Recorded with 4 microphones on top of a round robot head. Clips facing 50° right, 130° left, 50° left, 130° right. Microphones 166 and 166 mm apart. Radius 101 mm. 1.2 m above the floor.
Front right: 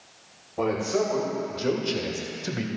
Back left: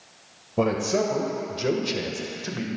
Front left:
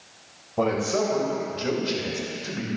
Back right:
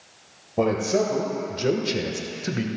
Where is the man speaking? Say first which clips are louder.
Back left 2 dB, back right 2 dB; 165° left, 1.7 m; by 2.7 s 115° right, 1.4 m.